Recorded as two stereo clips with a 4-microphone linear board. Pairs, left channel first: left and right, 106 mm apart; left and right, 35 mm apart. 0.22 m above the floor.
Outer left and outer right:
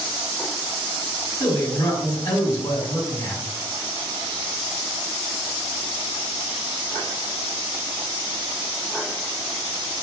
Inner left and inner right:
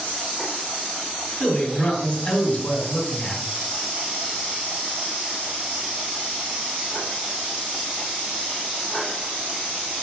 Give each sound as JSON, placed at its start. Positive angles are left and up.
{"t": 1.4, "sound": "a man speaking", "side_deg": 35, "distance_m": 1.6}